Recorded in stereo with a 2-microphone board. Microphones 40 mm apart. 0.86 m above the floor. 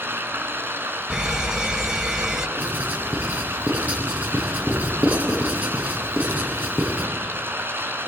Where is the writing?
40° right (ahead or behind), 8.5 m.